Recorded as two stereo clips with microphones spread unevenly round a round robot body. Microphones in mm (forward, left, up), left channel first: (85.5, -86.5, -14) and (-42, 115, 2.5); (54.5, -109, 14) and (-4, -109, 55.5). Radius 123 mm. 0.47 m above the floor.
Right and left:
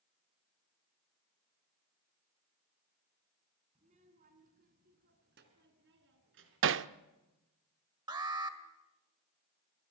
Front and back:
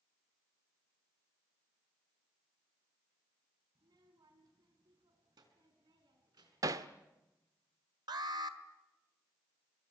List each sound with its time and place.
3.8 s a child speaking: 175° right, 3.5 m; by 6.8 s 165° left, 5 m
6.6 s hammering: 115° left, 0.7 m
8.1 s an alarm: 165° right, 1.9 m